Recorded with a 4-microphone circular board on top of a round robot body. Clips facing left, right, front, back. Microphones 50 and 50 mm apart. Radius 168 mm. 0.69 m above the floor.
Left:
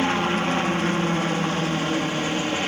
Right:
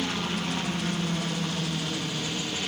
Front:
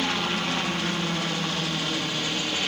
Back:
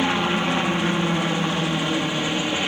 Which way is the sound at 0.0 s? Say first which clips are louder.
Left 8 dB, back 5 dB; 120° left.